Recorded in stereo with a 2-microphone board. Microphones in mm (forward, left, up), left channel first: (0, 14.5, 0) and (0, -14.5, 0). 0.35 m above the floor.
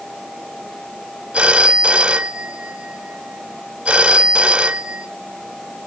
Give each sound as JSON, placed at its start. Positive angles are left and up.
{"t": 1.3, "sound": "a phone ringing", "side_deg": -40, "distance_m": 1.0}